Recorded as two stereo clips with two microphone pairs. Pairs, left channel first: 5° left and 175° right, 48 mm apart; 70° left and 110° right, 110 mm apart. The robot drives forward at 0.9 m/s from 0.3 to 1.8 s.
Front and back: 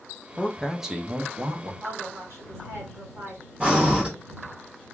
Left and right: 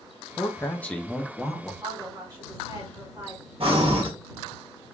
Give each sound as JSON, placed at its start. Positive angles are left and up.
{"t": 0.3, "sound": "a man speaking", "azimuth_deg": 25, "distance_m": 0.7}
{"t": 1.8, "sound": "a woman speaking", "azimuth_deg": -165, "distance_m": 2.5}
{"t": 3.6, "sound": "breathing", "azimuth_deg": -110, "distance_m": 1.0}